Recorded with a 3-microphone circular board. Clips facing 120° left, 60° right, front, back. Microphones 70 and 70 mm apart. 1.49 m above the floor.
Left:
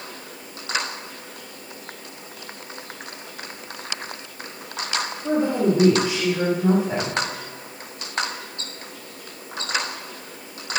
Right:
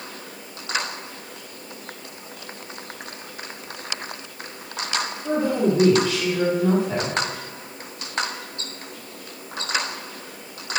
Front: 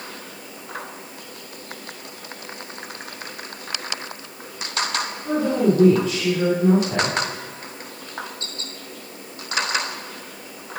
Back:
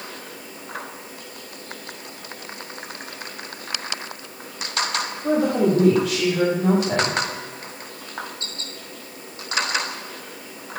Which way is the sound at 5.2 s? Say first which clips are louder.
Left 1 dB, back 1 dB; 170° right.